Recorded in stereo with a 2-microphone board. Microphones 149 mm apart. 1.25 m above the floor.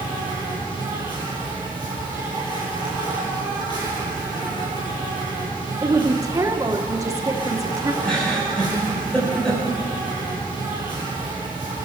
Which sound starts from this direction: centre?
A giggle, at 8.0 s.